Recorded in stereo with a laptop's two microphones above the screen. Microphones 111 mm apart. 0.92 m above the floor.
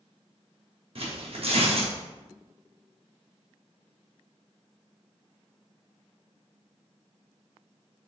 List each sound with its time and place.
0.9 s tearing paper: 55° right (ahead or behind), 0.9 m